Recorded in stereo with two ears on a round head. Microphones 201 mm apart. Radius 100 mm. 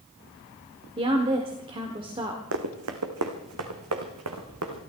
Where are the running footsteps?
65° right (ahead or behind), 1.9 m; by 4.8 s 70° right (ahead or behind), 3 m.